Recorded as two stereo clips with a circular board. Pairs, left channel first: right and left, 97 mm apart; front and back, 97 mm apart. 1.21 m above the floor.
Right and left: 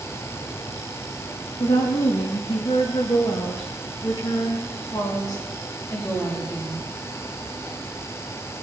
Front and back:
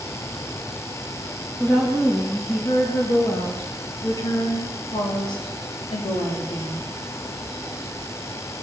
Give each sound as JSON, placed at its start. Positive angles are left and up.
{"t": 1.6, "sound": "a woman speaking", "azimuth_deg": -80, "distance_m": 2.0}